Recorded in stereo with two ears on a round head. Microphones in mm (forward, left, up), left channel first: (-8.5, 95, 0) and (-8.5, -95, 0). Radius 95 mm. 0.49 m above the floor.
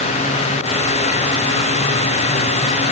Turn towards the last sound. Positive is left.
No sound to turn to.